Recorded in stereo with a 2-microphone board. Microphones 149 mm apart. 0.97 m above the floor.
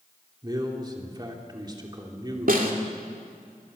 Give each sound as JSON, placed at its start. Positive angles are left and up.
{"t": 0.4, "sound": "a man speaking", "side_deg": -30, "distance_m": 3.0}
{"t": 2.5, "sound": "a snare drum", "side_deg": -75, "distance_m": 3.0}